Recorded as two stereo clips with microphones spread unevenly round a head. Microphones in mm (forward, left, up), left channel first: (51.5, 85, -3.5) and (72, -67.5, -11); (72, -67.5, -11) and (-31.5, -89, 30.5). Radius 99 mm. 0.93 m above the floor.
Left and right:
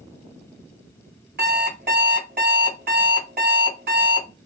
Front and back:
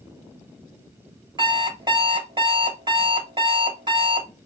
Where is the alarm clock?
130° right, 1.7 m.